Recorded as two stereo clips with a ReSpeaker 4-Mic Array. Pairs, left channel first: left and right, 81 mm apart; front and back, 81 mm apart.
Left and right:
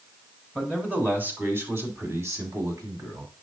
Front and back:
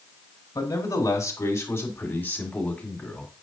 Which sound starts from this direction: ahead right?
A man speaking, at 0.6 s.